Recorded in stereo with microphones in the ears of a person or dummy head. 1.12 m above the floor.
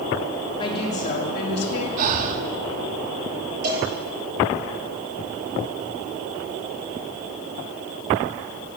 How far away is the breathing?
About 1.0 m.